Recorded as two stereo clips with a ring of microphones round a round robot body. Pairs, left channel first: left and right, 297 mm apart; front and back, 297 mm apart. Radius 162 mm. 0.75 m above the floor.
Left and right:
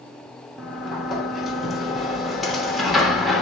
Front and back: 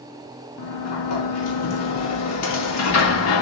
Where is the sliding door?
Straight ahead, 1.5 m.